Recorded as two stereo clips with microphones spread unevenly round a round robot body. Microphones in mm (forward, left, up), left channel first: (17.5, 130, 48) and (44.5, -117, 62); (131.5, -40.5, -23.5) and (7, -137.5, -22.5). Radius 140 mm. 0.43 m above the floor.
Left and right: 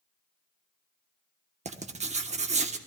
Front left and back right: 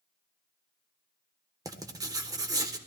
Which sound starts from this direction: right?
Writing, at 1.6 s.